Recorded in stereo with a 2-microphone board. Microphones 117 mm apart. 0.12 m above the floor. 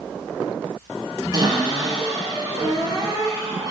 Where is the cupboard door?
30° right (ahead or behind), 2.5 m.